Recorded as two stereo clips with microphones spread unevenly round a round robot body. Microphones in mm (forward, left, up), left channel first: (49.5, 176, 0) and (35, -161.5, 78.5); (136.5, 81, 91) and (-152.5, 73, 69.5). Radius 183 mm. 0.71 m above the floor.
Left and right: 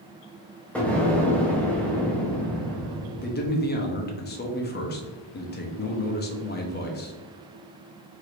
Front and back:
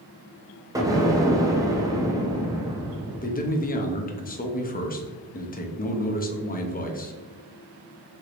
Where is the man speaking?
60° left, 0.8 m.